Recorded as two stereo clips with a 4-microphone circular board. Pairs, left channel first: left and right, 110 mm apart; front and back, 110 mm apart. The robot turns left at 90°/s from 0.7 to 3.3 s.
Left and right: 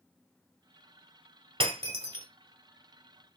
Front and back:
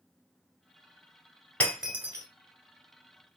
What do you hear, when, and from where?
1.6 s breaking glass: 75° right, 1.3 m; by 2.2 s 135° right, 1.3 m